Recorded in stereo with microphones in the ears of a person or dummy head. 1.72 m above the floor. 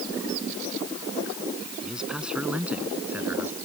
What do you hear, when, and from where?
1.8 s a man speaking: centre (ahead or behind); by 3.5 s 5° right (ahead or behind)